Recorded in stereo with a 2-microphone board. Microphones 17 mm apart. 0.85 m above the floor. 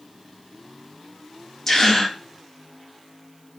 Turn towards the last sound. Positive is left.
turn(degrees=30)  # may be behind; listen again after turning